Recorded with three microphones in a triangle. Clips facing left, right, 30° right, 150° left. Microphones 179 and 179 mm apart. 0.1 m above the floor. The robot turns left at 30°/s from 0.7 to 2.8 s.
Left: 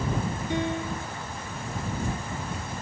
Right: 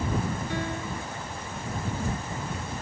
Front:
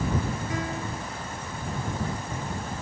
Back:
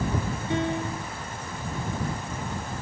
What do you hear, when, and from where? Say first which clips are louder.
0.5 s a piano: left 3 dB, back 4 dB; 135° left; by 1.1 s 120° left